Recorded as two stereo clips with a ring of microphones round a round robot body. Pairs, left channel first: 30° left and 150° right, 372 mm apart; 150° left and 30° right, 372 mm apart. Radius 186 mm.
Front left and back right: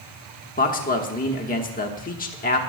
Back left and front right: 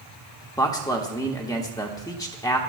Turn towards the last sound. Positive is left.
turn(degrees=80)